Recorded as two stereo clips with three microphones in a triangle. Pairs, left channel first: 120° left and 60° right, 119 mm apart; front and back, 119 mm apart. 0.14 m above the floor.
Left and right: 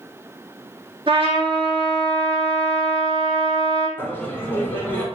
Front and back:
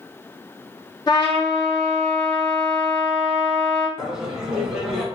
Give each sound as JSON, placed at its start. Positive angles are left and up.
{"t": 1.1, "sound": "a trumpet", "azimuth_deg": -40, "distance_m": 1.7}
{"t": 4.0, "sound": "laughter", "azimuth_deg": 105, "distance_m": 1.1}